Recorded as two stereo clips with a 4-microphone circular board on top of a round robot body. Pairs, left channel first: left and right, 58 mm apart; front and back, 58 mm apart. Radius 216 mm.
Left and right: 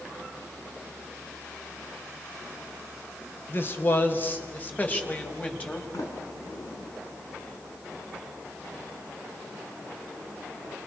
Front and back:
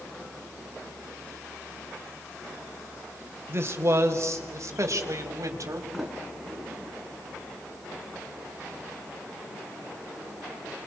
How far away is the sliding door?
About 4 m.